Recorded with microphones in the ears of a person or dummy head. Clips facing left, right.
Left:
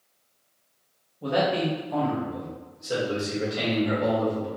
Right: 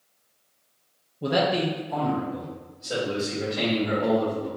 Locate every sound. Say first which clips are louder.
1.2 s a man speaking: right 1 dB; 30° right (ahead or behind), 0.6 m; by 4.5 s 25° left (ahead or behind), 3 m